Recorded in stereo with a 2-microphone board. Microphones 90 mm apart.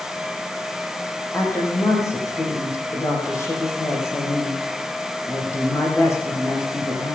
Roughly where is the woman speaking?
Left.